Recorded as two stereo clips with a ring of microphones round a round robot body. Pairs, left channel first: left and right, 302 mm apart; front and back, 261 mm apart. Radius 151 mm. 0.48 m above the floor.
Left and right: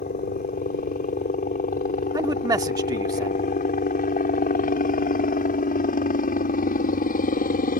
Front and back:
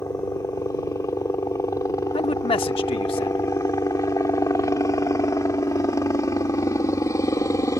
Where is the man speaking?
30° right.